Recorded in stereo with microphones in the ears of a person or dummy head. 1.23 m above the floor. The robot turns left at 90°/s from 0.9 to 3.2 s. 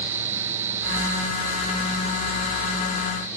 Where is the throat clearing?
No throat clearing in this recording.